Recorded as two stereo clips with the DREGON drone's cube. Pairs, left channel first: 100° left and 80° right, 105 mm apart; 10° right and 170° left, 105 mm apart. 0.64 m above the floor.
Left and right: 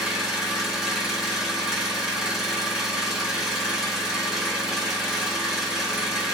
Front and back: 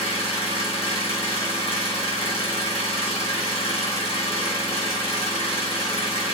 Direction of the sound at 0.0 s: 5° left.